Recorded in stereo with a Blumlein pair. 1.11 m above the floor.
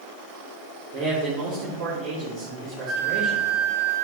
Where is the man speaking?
20° right, 3 m.